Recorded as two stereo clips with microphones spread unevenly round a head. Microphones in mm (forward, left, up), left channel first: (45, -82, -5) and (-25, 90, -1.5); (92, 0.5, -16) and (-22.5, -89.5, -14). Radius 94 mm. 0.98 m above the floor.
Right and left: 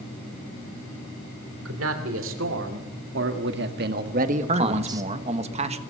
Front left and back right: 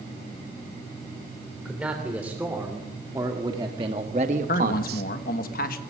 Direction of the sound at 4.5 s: 60° left.